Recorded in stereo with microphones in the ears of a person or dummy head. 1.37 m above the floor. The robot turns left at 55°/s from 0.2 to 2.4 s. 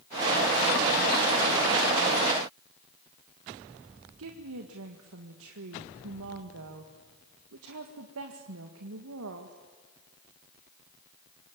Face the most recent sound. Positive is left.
turn(degrees=-75)  # may be behind; listen again after turning